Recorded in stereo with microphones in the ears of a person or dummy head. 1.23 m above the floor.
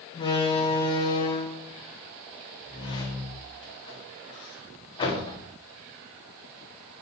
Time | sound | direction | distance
0.1 | a door slam | 25° left (ahead or behind) | 1.9 m